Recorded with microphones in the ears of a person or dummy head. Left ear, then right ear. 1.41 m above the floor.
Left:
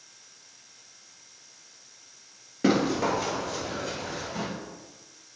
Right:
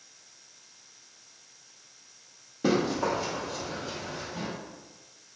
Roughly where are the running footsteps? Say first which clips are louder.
Left 2 dB; left.